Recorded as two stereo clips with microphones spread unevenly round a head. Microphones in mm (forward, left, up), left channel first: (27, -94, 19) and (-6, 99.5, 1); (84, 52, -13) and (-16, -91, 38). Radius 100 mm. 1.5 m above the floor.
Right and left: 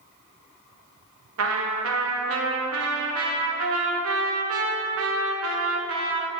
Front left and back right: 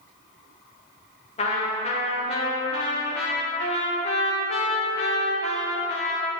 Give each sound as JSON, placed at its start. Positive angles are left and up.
{"t": 1.4, "sound": "a trumpet", "azimuth_deg": 120, "distance_m": 0.9}